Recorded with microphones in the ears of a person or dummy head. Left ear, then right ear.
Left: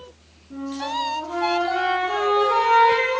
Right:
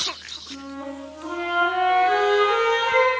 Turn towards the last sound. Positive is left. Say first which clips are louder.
# left 7 dB
turn(degrees=-50)  # may be behind; listen again after turning